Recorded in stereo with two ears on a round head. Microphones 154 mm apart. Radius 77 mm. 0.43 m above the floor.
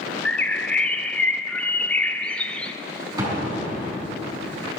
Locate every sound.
0.2 s a bird: 5° left (ahead or behind), 0.5 m
3.2 s an explosion: 20° right (ahead or behind), 5 m